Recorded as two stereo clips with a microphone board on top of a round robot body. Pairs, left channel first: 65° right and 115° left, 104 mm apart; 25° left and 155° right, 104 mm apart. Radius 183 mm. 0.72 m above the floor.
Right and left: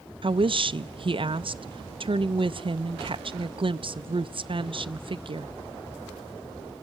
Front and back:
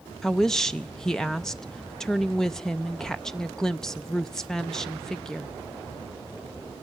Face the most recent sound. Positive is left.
turn(degrees=105)